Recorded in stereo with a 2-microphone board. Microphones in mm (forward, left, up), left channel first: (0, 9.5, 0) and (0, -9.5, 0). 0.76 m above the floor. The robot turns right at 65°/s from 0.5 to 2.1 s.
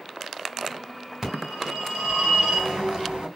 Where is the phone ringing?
155° right, 2.5 m; by 3.3 s 95° right, 2.5 m.